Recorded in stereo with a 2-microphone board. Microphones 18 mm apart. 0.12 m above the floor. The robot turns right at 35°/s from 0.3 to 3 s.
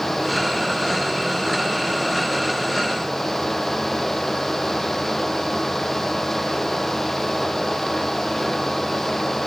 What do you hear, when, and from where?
Only background noise.